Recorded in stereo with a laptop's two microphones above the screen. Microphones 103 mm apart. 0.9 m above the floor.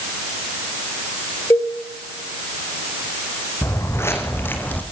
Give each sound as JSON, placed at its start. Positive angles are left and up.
{"t": 1.5, "sound": "a cowbell", "side_deg": 30, "distance_m": 2.5}
{"t": 3.6, "sound": "footsteps", "side_deg": 30, "distance_m": 3.5}